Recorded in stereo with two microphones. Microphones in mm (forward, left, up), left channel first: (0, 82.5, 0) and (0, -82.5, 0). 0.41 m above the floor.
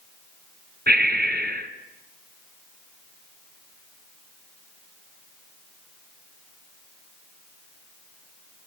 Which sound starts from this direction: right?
Breathing, at 0.9 s.